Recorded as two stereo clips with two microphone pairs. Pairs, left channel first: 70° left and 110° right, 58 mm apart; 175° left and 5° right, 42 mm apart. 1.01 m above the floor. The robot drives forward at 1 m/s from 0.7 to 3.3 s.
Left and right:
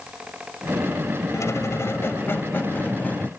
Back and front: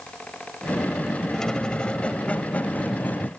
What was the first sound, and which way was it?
A squeak, 95° left.